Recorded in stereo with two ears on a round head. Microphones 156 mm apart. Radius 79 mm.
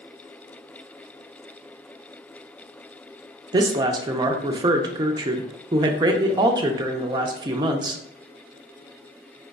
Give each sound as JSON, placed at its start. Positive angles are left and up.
{"t": 3.5, "sound": "a woman speaking", "side_deg": -25, "distance_m": 0.6}